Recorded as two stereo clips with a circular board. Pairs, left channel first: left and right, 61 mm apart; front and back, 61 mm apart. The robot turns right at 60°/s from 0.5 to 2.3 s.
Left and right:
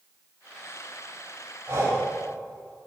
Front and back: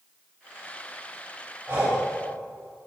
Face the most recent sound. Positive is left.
turn(degrees=-95)